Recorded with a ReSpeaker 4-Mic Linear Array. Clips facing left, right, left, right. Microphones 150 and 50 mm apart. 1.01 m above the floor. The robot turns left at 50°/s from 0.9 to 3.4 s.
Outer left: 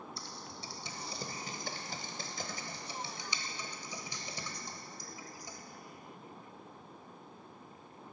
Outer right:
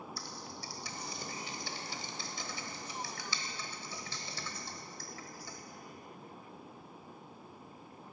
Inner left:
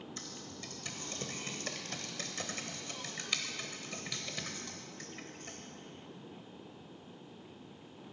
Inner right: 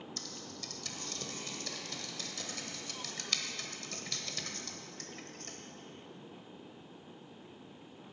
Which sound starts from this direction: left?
Typing on a keyboard, at 0.2 s.